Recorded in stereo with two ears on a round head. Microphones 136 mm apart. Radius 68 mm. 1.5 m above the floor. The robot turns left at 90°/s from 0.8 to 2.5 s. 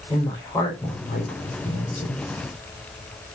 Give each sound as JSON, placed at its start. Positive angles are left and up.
{"t": 0.1, "sound": "a woman speaking", "side_deg": 15, "distance_m": 5.0}